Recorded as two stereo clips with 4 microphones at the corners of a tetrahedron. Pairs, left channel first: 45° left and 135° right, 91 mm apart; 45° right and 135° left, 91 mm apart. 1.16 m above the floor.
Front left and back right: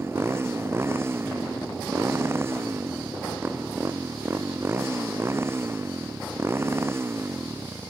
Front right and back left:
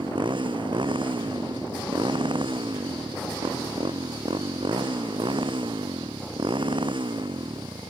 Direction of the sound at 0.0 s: 165° left.